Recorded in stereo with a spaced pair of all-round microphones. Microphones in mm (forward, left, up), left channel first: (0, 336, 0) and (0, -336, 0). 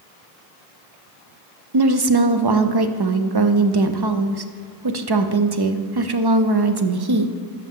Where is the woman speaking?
40° right (ahead or behind), 0.5 m.